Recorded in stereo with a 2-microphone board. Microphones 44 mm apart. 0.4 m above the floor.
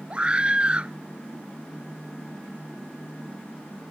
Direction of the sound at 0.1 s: 25° right (ahead or behind).